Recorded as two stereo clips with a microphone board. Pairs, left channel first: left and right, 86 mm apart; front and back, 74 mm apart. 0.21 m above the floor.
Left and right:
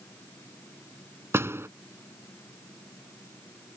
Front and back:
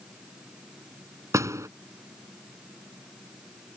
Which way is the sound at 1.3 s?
145° right.